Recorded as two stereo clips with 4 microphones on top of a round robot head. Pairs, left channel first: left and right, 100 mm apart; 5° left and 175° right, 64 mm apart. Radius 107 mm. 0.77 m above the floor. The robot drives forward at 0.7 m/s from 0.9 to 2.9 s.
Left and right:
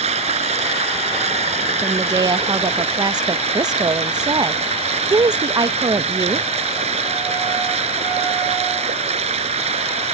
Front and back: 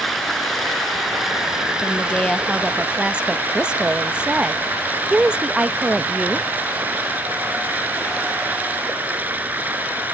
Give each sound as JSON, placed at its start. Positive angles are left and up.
{"t": 0.0, "sound": "running water", "azimuth_deg": -90}
{"t": 1.8, "sound": "a woman speaking", "azimuth_deg": -45}